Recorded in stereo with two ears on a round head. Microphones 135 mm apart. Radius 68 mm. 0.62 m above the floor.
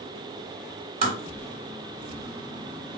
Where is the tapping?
45° right (ahead or behind), 2 m.